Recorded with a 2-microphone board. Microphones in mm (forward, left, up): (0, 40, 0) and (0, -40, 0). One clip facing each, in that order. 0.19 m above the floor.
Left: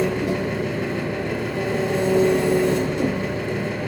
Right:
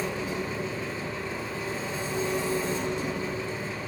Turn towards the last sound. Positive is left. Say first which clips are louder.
# left 9 dB
turn(degrees=75)  # may be behind; listen again after turning